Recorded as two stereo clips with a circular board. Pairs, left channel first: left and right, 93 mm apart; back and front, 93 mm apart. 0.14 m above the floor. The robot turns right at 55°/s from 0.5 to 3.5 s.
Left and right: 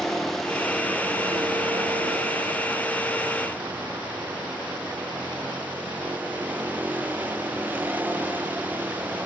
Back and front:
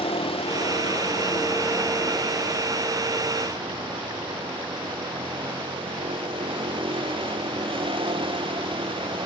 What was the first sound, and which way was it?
A vehicle, 175° left.